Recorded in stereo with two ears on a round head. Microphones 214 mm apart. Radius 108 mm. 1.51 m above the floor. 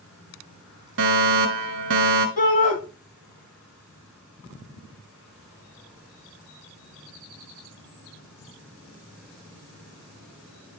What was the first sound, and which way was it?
A fire alarm, 55° right (ahead or behind).